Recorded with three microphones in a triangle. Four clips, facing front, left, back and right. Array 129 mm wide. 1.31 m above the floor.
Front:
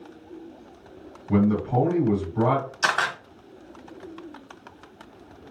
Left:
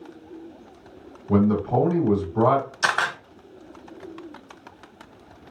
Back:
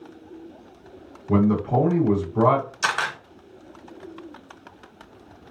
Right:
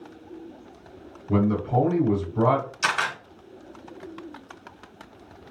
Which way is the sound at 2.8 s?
75° left.